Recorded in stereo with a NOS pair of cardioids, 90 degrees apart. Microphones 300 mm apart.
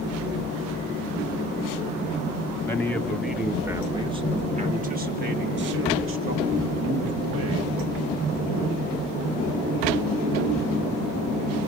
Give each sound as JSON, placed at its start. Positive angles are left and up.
{"t": 2.6, "sound": "a man speaking", "azimuth_deg": 10, "distance_m": 2.0}